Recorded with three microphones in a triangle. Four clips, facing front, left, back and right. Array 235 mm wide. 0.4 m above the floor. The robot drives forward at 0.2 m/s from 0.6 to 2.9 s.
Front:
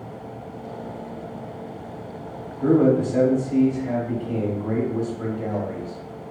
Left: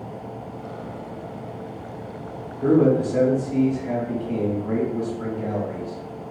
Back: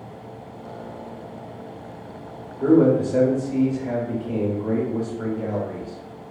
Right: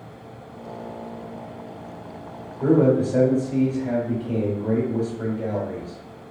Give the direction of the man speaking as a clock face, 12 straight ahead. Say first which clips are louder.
Even, back 1 dB; 5 o'clock.